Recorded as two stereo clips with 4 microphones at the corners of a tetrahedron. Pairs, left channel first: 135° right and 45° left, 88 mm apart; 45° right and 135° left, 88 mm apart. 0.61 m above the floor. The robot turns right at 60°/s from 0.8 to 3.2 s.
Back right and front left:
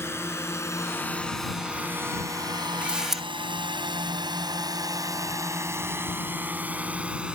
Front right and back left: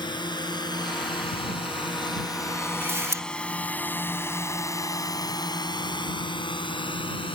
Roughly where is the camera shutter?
Left.